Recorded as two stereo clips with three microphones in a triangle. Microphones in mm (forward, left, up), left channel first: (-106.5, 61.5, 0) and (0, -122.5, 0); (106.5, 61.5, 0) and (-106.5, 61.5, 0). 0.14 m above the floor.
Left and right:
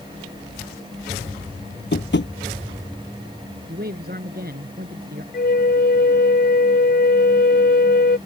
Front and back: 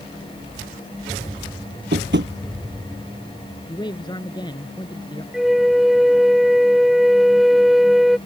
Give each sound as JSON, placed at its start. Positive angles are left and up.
{"t": 1.9, "sound": "tapping", "azimuth_deg": 150}
{"t": 3.7, "sound": "a man speaking", "azimuth_deg": -60}
{"t": 5.3, "sound": "a flute", "azimuth_deg": 90}